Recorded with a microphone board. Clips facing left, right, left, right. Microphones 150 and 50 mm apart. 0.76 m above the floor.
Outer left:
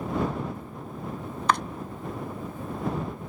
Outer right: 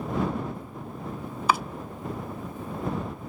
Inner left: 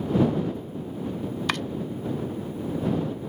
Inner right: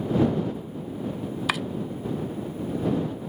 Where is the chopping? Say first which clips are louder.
Even, inner right 1 dB; 5° right (ahead or behind).